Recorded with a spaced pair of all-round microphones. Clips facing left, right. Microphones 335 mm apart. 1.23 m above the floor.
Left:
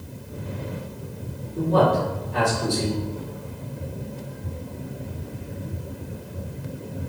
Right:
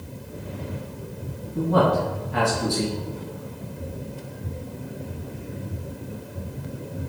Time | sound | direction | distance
1.6 | a man speaking | 70° right (ahead or behind) | 2 m